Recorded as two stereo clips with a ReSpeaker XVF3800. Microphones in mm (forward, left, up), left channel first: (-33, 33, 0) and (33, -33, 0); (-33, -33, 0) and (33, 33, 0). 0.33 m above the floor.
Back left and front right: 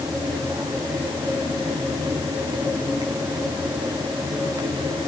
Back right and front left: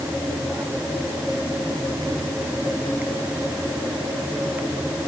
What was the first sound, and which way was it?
Only background noise.